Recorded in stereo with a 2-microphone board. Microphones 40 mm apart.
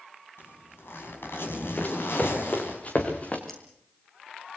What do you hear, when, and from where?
0.4 s a zipper: 75° left (ahead or behind), 6 m
1.8 s running footsteps: 40° left (ahead or behind), 5 m; by 3.4 s 35° left (ahead or behind), 4 m
3.5 s scissors: 5° left (ahead or behind), 8.5 m